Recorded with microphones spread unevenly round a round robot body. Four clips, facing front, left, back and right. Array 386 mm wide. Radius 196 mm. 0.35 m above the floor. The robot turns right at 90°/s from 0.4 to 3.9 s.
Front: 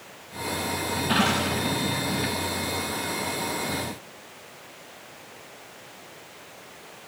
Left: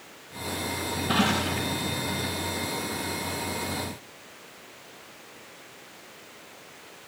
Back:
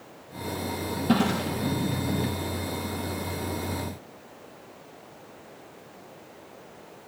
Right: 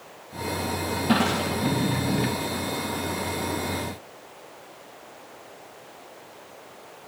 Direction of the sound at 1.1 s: 160° right.